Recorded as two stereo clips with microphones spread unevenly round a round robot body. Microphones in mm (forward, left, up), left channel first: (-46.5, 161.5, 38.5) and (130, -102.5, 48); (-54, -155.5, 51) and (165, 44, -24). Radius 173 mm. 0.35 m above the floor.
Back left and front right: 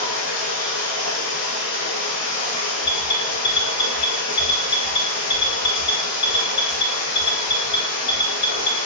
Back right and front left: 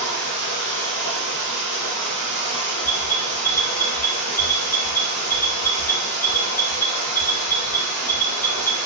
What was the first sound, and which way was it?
Running water, 85° left.